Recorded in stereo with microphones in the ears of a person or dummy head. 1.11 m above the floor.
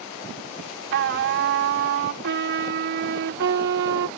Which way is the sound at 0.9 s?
60° right (ahead or behind).